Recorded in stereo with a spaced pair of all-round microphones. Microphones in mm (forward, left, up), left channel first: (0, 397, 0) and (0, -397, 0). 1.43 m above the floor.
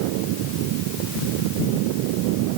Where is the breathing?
No breathing in this recording.